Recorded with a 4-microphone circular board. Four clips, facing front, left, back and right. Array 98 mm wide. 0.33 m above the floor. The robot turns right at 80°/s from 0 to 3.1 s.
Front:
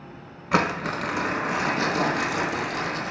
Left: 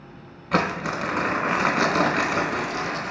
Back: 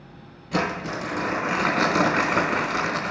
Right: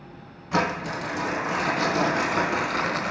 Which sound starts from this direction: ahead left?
Crumpling, at 0.5 s.